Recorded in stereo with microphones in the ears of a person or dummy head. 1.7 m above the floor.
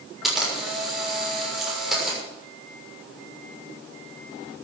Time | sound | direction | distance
0.2 | a camera shutter | centre (ahead or behind) | 6 m